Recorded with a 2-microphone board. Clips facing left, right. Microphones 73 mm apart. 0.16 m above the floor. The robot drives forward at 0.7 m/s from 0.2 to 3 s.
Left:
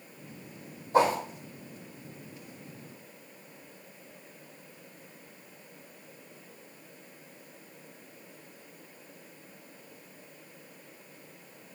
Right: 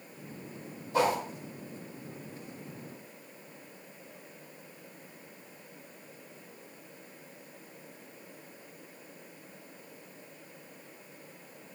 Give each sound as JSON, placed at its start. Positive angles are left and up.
{"t": 0.9, "sound": "a whoosh", "side_deg": 40, "distance_m": 3.5}